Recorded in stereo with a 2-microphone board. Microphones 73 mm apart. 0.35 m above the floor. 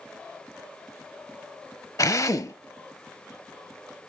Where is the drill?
50° left (ahead or behind), 0.8 m.